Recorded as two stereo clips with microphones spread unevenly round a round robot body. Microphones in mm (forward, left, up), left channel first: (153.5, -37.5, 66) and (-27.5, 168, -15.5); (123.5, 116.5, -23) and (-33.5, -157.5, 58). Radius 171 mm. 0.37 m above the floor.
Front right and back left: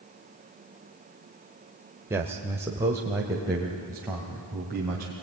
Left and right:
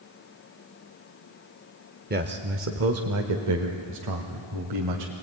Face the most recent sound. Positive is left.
turn(degrees=-155)